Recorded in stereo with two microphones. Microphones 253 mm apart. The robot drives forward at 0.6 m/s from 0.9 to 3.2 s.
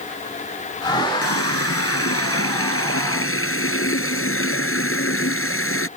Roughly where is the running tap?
Left.